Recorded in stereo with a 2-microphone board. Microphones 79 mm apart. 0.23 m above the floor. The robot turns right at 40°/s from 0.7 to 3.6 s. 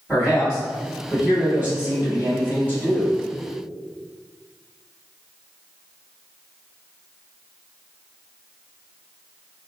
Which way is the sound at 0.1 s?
10° right (ahead or behind).